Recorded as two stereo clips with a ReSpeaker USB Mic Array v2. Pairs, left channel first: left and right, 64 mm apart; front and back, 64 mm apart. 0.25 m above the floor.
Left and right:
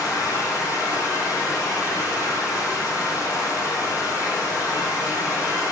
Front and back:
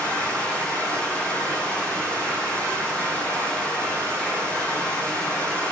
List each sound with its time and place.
0.0 s running water: 70° left, 9 m